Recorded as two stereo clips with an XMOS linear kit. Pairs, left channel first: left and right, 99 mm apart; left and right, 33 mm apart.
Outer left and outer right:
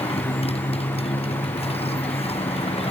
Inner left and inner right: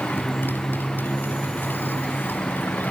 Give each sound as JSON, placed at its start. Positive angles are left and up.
{"t": 0.0, "sound": "a motorcycle", "side_deg": 80}